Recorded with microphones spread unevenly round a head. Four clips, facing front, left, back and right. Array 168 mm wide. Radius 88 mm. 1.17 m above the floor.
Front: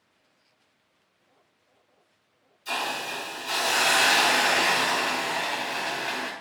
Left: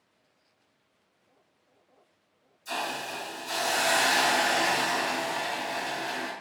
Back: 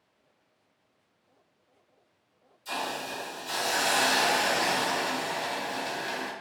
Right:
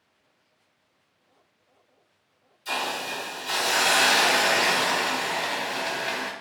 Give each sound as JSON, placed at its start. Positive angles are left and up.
{"t": 2.6, "sound": "a hiss", "azimuth_deg": -50, "distance_m": 2.0}